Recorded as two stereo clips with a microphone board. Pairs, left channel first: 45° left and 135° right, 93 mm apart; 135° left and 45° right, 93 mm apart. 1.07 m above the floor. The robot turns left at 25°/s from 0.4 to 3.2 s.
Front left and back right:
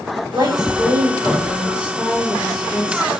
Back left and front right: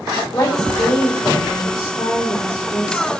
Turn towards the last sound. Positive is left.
turn(degrees=115)